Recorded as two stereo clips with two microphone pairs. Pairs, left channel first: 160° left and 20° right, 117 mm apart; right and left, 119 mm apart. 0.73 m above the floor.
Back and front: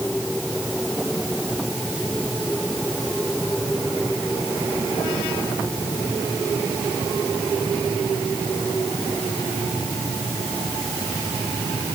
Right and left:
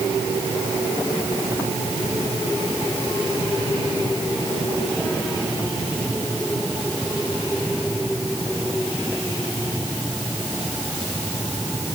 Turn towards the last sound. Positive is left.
No sound to turn to.